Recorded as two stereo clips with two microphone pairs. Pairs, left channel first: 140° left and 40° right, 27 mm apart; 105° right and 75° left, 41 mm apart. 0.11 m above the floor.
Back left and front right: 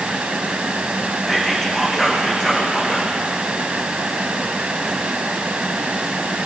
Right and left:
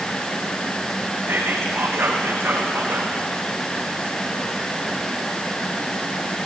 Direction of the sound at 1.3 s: 65° left.